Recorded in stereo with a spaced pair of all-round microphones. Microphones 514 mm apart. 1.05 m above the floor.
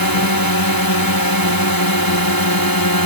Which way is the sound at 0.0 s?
40° left (ahead or behind).